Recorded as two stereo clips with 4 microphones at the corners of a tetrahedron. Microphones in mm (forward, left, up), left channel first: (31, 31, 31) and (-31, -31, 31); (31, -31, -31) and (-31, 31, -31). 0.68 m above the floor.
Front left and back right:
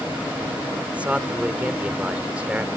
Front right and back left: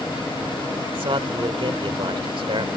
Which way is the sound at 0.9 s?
150° left.